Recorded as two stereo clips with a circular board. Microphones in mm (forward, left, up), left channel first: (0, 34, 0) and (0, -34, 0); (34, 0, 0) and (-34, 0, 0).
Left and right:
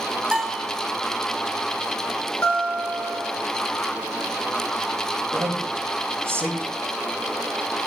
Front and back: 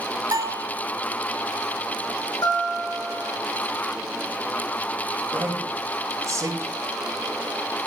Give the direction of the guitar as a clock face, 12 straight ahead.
11 o'clock.